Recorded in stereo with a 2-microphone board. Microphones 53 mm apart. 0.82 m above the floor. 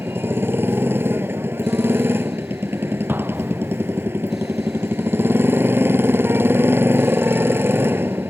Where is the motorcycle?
50° right (ahead or behind).